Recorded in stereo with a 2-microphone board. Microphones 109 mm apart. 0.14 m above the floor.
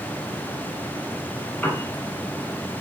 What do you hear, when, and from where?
1.6 s a piano: 15° left (ahead or behind), 1.1 m